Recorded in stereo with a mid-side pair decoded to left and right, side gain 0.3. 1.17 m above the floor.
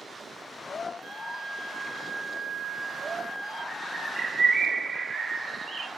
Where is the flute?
65° right, 3 m.